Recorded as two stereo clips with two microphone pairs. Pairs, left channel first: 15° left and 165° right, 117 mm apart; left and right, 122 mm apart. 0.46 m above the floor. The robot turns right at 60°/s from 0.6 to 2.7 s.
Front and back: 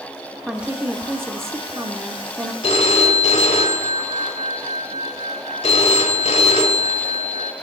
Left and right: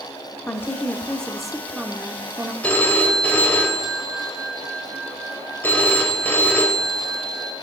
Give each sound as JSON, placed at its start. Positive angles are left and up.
{"t": 0.5, "sound": "a woman speaking", "azimuth_deg": 130, "distance_m": 0.8}
{"t": 2.6, "sound": "a phone ringing", "azimuth_deg": 15, "distance_m": 1.2}